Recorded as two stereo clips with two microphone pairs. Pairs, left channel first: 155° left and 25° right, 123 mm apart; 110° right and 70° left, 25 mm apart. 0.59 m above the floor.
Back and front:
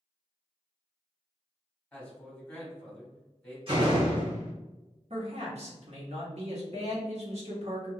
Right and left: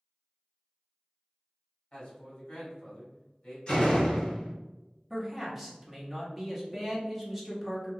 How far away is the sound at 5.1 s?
About 1.0 m.